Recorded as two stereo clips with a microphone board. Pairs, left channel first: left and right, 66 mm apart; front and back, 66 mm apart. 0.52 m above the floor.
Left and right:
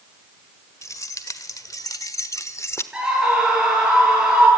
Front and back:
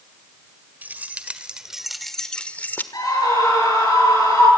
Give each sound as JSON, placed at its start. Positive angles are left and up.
{"t": 0.8, "sound": "keys jangling", "azimuth_deg": 120, "distance_m": 1.5}
{"t": 2.9, "sound": "a scream", "azimuth_deg": -15, "distance_m": 9.0}